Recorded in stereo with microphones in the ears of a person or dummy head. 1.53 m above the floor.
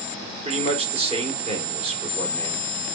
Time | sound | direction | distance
0.5 | a man speaking | 40° right (ahead or behind) | 1.7 m